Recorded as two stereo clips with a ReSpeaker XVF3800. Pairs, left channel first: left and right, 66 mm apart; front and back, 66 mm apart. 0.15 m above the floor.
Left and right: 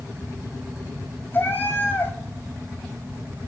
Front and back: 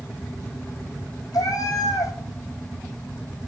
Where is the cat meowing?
30° left, 1.0 m.